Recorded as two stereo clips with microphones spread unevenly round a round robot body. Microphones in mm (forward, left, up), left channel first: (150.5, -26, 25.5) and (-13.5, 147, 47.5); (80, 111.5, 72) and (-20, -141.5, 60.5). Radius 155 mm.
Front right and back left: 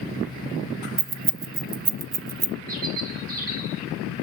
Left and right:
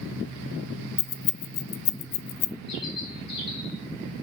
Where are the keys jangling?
80° left, 0.6 m.